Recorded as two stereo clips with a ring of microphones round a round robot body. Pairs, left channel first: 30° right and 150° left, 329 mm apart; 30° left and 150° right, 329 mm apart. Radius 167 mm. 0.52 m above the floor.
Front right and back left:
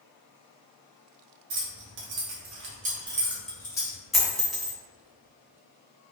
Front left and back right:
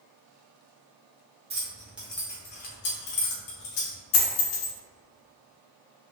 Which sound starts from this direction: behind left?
Keys jangling, at 1.5 s.